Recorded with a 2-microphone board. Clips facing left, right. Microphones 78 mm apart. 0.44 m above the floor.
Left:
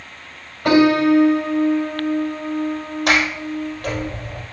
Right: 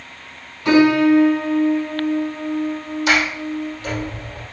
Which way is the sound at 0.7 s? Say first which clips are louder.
Right 1 dB; 65° left (ahead or behind).